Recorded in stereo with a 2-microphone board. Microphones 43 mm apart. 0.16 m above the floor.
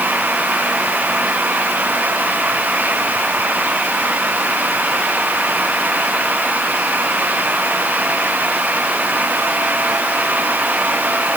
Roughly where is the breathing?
I don't hear breathing.